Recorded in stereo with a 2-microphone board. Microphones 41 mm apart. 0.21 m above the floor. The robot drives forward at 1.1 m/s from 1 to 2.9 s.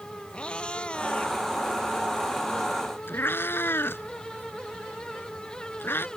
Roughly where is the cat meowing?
Left.